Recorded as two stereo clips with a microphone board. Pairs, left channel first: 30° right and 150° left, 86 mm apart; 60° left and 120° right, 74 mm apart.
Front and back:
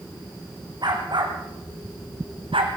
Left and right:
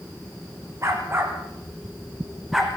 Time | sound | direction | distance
0.8 | a dog barking | 175° right | 4 m